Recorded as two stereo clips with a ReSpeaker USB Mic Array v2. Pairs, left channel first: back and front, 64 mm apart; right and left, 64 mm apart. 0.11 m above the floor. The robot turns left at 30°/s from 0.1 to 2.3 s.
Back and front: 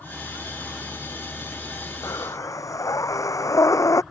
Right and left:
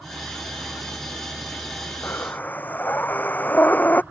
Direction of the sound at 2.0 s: 145° right.